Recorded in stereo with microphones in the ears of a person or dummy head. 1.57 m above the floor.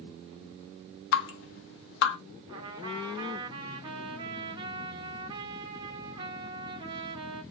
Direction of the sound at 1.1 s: 65° left (ahead or behind).